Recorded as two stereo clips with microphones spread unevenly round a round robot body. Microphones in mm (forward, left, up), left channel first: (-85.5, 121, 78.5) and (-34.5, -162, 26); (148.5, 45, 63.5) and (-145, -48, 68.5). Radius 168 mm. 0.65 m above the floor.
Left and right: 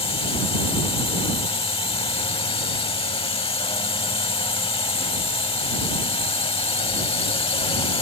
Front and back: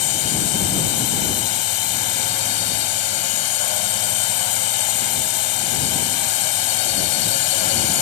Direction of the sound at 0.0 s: 25° left.